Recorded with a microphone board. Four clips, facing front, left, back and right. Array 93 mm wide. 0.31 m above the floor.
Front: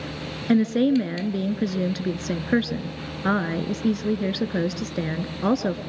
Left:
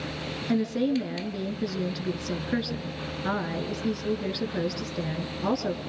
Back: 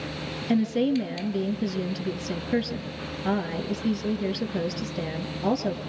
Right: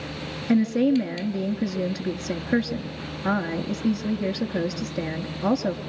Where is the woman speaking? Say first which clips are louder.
Right 5 dB, front 4 dB; 10° right, 4.5 m.